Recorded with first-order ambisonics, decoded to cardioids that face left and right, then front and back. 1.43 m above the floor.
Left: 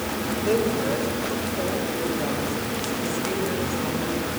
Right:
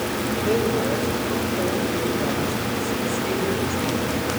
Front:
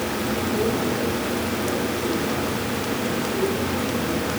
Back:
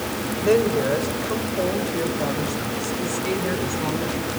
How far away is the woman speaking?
About 6 m.